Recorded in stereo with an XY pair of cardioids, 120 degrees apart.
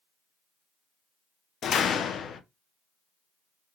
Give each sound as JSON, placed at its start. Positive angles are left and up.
{"t": 1.6, "sound": "a door slam", "azimuth_deg": 50, "distance_m": 0.5}